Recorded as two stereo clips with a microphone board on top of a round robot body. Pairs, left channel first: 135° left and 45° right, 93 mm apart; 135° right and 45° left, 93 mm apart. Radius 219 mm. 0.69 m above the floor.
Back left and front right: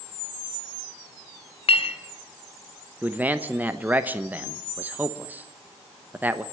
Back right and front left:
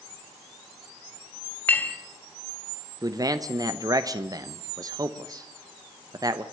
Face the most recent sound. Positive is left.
turn(degrees=20)